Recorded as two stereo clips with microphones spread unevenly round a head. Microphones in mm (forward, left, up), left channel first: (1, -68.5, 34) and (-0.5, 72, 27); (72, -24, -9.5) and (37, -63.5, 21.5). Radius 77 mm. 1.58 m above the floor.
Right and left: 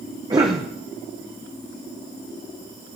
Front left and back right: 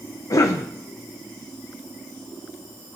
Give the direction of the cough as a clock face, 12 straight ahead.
11 o'clock.